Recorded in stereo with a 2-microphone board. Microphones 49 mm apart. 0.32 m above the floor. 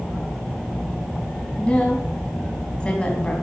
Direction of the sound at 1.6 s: 25° left (ahead or behind).